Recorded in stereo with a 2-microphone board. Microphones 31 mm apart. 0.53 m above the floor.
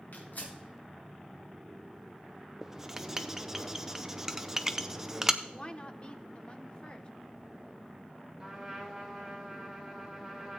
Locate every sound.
0.1 s tearing paper: 70° left (ahead or behind), 4 m
2.6 s writing: 15° right (ahead or behind), 0.6 m
5.4 s a woman speaking: 35° left (ahead or behind), 0.9 m
8.4 s a trumpet: 10° right (ahead or behind), 3.5 m